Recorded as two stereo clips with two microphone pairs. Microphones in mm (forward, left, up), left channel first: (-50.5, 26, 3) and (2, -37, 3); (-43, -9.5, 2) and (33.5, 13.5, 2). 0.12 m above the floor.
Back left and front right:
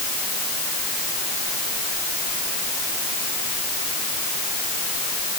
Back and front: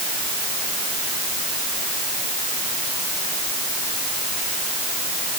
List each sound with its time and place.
Only background noise.